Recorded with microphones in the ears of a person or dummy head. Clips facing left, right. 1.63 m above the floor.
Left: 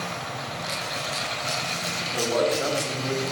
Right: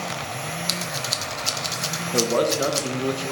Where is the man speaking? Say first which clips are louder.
Right 3 dB; 60° right (ahead or behind), 1.4 m.